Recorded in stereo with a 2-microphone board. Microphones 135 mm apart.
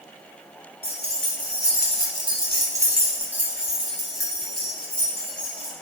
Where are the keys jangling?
50° right (ahead or behind), 1.5 m; by 5.7 s 10° left (ahead or behind), 3 m.